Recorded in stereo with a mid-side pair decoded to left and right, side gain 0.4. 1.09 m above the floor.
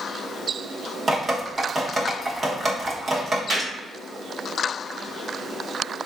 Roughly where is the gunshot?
Ahead right.